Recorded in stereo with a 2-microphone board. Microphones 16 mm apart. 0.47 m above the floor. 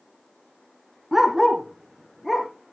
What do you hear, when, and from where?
1.1 s a dog barking: 10° right (ahead or behind), 1.8 m; by 2.5 s centre (ahead or behind), 3 m